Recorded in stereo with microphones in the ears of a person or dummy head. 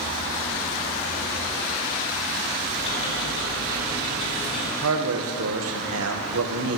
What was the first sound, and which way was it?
Ticking, 35° left (ahead or behind).